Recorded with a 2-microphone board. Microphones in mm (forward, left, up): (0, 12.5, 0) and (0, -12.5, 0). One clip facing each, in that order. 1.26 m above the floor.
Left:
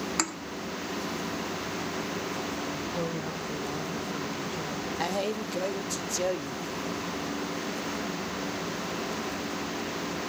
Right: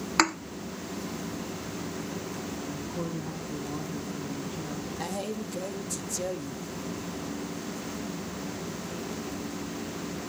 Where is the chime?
I don't hear a chime.